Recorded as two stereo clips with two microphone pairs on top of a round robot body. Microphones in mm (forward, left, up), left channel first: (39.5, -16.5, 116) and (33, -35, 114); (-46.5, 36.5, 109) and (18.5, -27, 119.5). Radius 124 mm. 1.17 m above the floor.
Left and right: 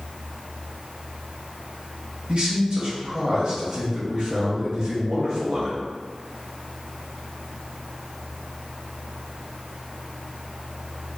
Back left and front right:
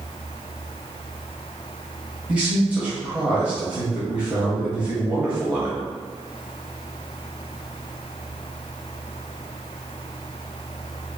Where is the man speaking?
120° right, 1.3 m.